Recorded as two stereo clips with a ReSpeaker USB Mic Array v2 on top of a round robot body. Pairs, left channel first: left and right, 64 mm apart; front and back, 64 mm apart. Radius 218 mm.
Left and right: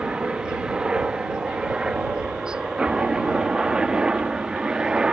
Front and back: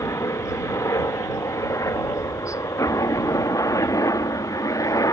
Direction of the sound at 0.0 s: 15° right.